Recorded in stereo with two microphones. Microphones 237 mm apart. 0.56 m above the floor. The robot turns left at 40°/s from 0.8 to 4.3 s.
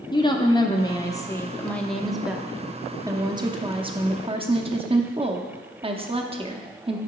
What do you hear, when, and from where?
0.1 s a woman speaking: 20° left (ahead or behind), 0.6 m; by 7.0 s 25° right (ahead or behind), 0.6 m